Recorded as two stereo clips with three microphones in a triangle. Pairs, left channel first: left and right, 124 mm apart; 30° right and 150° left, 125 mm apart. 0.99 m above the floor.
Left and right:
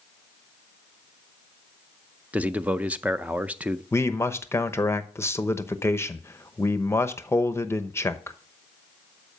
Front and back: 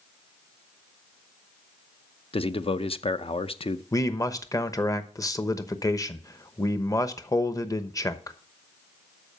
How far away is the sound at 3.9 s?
About 0.9 m.